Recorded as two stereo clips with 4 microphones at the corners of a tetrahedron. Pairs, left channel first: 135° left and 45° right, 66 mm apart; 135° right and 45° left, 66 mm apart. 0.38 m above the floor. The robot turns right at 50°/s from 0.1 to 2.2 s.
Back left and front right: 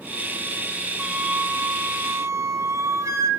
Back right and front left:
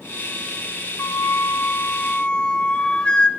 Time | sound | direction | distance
1.0 | a flute | 125° right | 1.5 m